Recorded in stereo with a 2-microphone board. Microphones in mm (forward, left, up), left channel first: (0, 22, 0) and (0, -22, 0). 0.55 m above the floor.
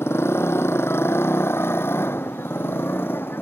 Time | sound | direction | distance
0.0 | a motorcycle | 80° left | ?